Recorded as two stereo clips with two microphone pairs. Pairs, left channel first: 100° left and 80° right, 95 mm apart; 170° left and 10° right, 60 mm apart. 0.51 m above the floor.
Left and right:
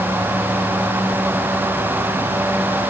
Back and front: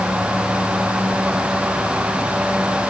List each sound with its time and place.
Only background noise.